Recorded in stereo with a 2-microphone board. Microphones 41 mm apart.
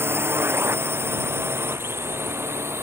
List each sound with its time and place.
0.0 s a drone: 70° right (ahead or behind); by 2.8 s 80° right